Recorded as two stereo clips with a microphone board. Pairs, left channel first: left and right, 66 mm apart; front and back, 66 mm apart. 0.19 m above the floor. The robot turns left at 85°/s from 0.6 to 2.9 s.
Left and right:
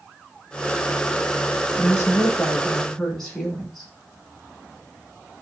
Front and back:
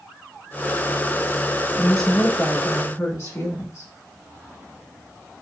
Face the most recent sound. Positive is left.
turn(degrees=5)